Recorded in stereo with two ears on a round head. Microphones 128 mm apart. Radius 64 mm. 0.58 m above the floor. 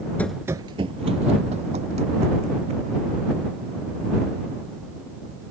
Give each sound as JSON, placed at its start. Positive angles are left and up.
{"t": 0.2, "sound": "running footsteps", "side_deg": 10}